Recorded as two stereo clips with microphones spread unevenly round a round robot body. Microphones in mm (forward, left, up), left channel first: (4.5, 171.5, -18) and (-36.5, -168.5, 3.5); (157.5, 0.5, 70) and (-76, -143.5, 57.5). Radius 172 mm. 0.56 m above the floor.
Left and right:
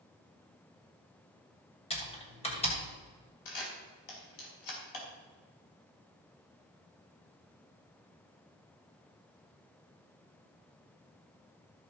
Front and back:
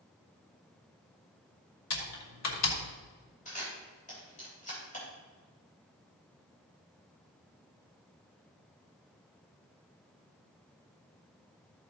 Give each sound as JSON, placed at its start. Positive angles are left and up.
{"t": 1.9, "sound": "typing on a keyboard", "azimuth_deg": 10, "distance_m": 2.5}
{"t": 3.5, "sound": "a camera shutter", "azimuth_deg": 100, "distance_m": 3.5}